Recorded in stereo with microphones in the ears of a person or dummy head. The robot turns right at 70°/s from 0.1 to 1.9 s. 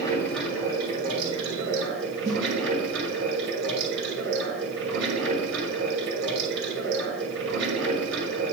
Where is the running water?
155° left, 2.5 m; by 8.5 s 80° right, 2.5 m.